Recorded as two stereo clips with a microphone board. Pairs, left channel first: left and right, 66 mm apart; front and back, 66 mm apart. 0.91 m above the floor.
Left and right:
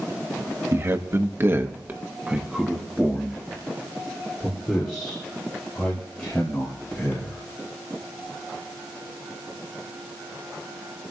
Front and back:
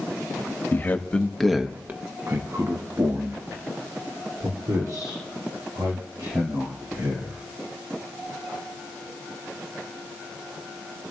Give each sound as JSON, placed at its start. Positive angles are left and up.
{"t": 0.7, "sound": "a man speaking", "azimuth_deg": -50, "distance_m": 1.4}